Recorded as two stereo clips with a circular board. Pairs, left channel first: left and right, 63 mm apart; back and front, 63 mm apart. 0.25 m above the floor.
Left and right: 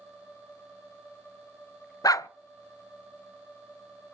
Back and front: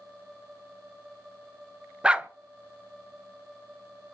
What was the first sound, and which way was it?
A dog barking, 75° left.